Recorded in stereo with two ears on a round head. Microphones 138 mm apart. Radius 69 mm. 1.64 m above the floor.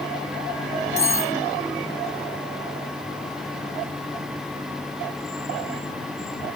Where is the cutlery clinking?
20° left (ahead or behind).